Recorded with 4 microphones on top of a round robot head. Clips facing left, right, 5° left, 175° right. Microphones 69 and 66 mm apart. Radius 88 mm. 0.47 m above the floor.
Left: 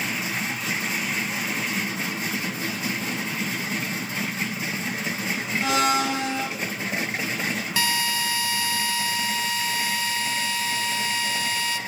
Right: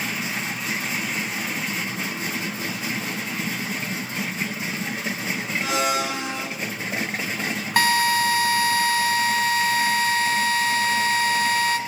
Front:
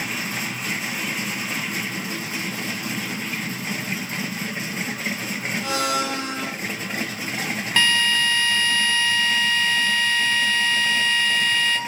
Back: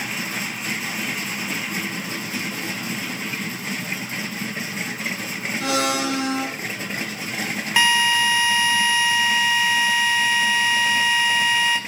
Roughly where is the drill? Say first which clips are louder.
Right 9 dB, back 2 dB; right.